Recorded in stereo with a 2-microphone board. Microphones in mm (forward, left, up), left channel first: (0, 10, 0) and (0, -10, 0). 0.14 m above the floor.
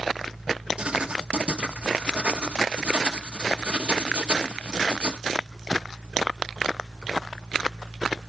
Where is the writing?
65° right (ahead or behind), 1.4 m.